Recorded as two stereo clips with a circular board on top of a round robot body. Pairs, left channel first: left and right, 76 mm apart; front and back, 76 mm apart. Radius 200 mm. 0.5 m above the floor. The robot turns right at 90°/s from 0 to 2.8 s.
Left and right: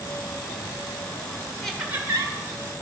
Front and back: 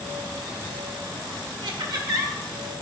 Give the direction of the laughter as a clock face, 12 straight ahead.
6 o'clock.